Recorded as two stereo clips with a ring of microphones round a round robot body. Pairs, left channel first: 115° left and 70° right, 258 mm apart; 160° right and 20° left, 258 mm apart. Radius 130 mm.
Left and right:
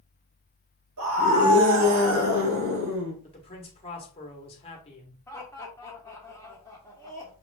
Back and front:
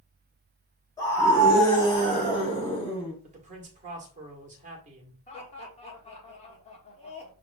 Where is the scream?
80° right, 2.5 m; by 3.1 s 90° right, 3.5 m.